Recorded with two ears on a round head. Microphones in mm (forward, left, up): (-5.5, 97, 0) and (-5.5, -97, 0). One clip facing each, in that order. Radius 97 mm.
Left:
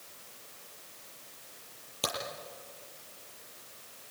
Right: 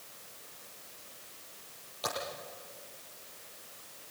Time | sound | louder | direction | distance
2.0 | a crack | left 1 dB | 70° left (ahead or behind) | 8.5 m